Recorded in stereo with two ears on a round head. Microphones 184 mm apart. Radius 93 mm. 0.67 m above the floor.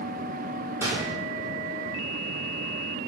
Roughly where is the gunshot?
Centre.